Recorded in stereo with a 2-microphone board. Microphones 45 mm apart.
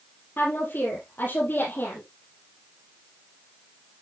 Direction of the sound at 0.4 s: 50° left (ahead or behind).